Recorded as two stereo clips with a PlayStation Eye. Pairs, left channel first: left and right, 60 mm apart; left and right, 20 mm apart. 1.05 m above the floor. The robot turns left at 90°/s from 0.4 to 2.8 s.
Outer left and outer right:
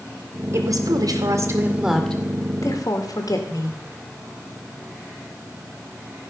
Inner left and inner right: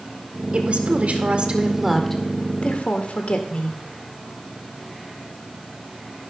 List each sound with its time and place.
0.5 s a woman speaking: 45° right, 1.7 m; by 3.8 s 110° left, 1.7 m